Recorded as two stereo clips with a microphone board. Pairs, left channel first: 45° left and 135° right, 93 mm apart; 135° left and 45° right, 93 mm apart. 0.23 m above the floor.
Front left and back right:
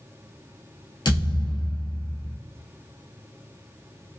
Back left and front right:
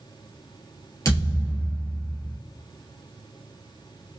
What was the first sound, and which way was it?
A thud, 80° left.